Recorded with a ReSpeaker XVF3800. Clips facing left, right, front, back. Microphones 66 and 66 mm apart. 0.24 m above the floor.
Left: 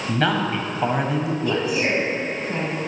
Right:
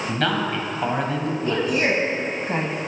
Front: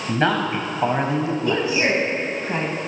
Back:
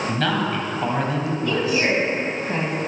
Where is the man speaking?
15° left, 1.2 m.